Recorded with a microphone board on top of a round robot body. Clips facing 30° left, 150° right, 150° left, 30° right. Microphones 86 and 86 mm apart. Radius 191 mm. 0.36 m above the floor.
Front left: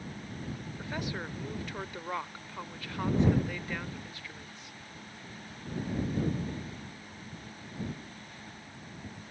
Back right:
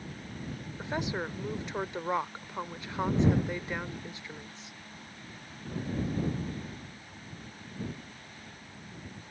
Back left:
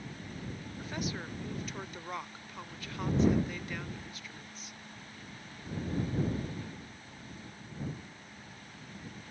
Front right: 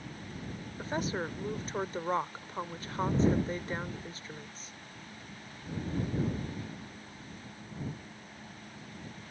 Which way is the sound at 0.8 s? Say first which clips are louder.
Back right 5 dB, front right 5 dB; 85° right.